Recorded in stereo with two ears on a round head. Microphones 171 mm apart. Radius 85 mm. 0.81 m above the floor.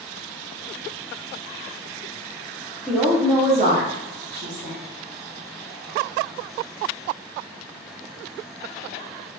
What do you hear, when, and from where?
2.9 s a woman speaking: 5° left (ahead or behind), 0.5 m; by 4.8 s 60° right (ahead or behind), 1.1 m